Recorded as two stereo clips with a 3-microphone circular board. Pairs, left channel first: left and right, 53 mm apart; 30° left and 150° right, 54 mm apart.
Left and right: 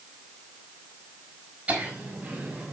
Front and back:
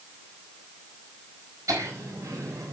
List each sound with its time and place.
1.7 s laughter: 160° right, 4 m; by 2.7 s 170° right, 3.5 m